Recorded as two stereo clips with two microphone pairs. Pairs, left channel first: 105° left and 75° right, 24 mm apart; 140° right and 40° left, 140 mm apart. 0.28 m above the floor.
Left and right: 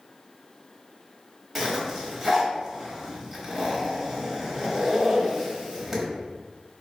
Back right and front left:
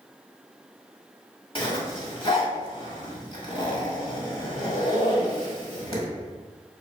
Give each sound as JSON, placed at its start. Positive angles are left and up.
{"t": 1.6, "sound": "a zipper", "azimuth_deg": -150, "distance_m": 1.2}